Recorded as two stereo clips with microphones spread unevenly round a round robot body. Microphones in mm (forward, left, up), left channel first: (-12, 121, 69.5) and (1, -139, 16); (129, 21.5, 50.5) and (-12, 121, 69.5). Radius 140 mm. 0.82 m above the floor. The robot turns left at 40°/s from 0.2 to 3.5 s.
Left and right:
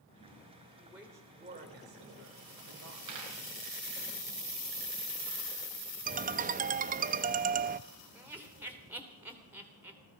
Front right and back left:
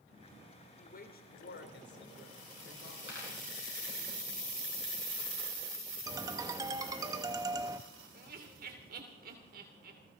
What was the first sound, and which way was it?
A woman speaking, 5° left.